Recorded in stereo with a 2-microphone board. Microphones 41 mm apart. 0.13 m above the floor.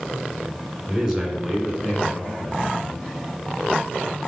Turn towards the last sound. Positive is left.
turn(degrees=30)  # may be behind; listen again after turning